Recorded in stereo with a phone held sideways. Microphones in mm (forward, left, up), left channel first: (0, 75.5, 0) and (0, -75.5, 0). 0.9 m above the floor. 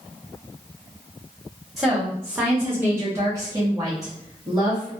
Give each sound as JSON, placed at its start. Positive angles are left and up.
{"t": 1.8, "sound": "a woman speaking", "side_deg": 0, "distance_m": 1.0}